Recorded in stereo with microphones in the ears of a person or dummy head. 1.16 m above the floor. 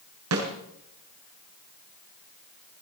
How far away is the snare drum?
About 7 m.